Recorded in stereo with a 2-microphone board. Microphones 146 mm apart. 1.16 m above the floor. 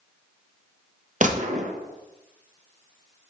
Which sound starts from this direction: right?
A gunshot, at 1.2 s.